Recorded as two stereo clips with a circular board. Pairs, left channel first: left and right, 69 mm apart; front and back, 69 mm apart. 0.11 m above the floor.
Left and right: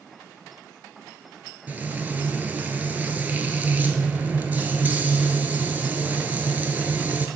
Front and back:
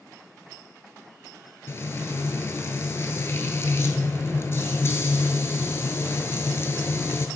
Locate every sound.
1.7 s frying: 35° right, 0.6 m